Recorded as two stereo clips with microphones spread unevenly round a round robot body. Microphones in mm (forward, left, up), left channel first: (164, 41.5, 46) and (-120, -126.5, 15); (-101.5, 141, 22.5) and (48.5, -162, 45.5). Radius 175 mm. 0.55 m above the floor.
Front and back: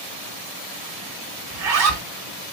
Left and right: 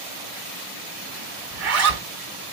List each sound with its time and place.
1.5 s a zipper: 110° right, 1.8 m